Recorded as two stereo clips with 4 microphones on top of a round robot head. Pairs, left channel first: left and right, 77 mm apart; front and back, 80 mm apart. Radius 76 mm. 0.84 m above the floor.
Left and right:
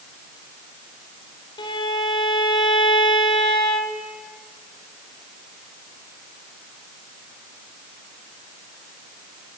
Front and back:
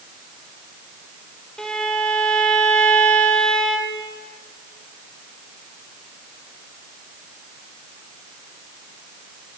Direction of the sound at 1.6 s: 85° left.